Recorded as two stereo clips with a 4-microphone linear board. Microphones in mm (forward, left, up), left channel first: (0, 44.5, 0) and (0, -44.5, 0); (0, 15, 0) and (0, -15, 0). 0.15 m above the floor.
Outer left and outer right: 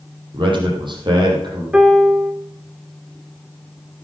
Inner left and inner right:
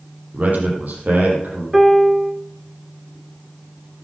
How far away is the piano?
About 1.0 m.